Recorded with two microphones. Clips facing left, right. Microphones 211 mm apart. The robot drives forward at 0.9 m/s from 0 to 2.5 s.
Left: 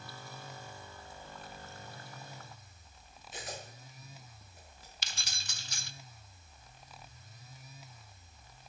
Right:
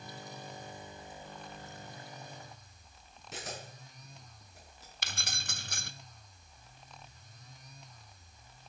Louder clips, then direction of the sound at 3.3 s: Right 1 dB; 80° right.